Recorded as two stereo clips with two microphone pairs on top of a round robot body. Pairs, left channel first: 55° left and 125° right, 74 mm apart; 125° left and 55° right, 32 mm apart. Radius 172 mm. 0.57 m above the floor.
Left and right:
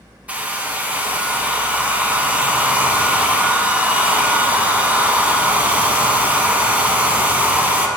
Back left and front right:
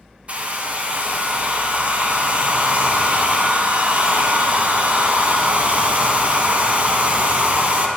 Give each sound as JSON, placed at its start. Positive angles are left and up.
{"t": 0.3, "sound": "a hair dryer", "azimuth_deg": -65, "distance_m": 0.8}